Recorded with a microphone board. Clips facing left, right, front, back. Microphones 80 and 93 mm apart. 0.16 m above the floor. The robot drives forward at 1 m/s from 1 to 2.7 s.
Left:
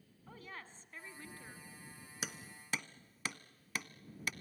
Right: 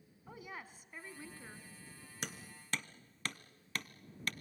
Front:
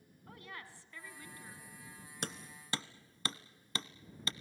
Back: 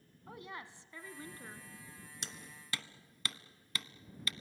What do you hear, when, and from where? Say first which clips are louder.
0.3 s a woman speaking: right 2 dB, back 3 dB; 150° right, 1.2 m; by 1.7 s 170° right, 1.6 m
2.2 s hammering: even, front 9 dB; 5° left, 1.0 m; by 4.3 s 10° left, 0.7 m